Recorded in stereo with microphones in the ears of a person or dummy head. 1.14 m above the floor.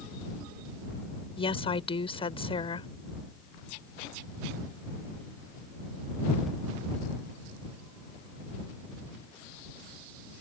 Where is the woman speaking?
30° left (ahead or behind).